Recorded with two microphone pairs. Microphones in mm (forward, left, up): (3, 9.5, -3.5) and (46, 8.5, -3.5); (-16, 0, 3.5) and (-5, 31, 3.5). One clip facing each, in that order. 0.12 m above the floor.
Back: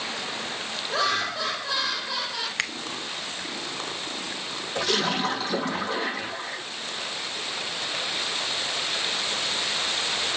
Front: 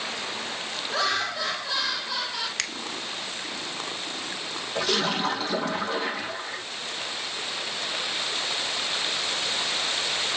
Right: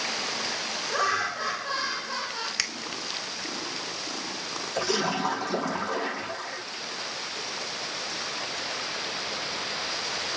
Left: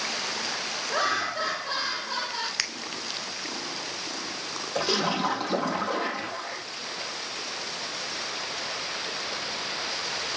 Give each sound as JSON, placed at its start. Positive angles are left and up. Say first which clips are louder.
{"t": 0.9, "sound": "laughter", "louder": "back 1 dB, even", "azimuth_deg": 85, "distance_m": 5.5}
{"t": 2.6, "sound": "a finger snap", "louder": "back 7 dB, right 2 dB", "azimuth_deg": 145, "distance_m": 0.9}
{"t": 4.8, "sound": "a splash", "louder": "even, left 1 dB", "azimuth_deg": 80, "distance_m": 6.0}